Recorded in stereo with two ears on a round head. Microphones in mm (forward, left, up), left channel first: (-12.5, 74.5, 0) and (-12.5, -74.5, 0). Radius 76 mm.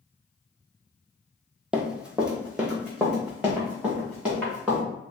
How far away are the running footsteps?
About 0.5 m.